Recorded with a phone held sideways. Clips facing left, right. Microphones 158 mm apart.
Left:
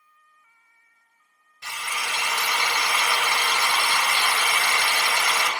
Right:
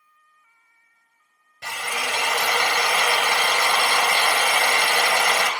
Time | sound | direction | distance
1.6 | a drill | 65° right (ahead or behind) | 1.5 m